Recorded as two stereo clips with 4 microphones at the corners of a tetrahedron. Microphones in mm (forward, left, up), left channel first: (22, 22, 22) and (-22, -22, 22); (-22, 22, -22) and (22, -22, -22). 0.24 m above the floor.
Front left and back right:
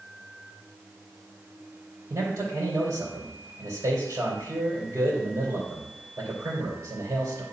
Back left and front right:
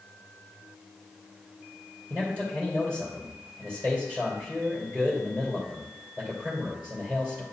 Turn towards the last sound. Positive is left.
turn(degrees=-100)